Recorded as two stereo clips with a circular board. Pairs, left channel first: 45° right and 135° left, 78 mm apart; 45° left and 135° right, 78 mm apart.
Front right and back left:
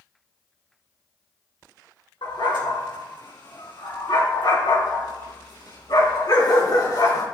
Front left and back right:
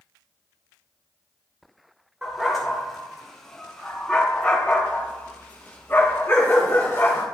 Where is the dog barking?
45° right, 4.5 m; by 7.2 s 10° right, 4 m.